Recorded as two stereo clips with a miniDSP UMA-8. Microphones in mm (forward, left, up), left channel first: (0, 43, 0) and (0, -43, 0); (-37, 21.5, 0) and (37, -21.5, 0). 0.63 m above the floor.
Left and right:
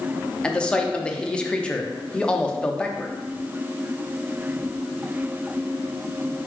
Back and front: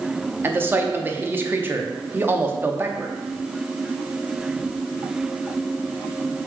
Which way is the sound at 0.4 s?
20° left.